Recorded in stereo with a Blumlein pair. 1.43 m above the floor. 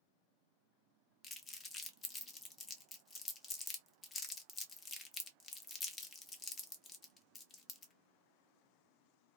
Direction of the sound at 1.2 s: 20° left.